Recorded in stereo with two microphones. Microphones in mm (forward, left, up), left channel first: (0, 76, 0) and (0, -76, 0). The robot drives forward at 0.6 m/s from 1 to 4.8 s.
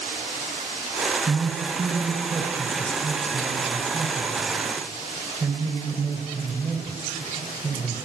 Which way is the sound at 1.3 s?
25° right (ahead or behind).